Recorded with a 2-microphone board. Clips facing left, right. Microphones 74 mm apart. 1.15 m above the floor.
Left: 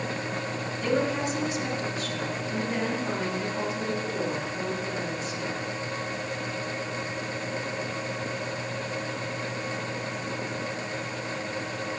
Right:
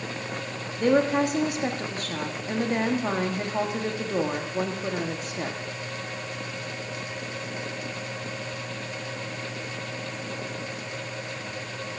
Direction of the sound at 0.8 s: 50° right (ahead or behind).